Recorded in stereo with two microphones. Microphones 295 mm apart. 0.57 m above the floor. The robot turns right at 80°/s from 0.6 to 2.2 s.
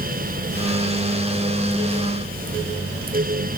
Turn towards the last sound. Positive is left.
No sound to turn to.